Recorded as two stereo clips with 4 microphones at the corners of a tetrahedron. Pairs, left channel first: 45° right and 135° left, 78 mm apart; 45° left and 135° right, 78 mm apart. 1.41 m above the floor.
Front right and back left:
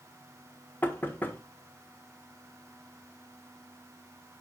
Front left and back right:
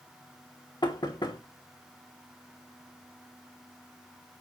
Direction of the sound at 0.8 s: 20° left.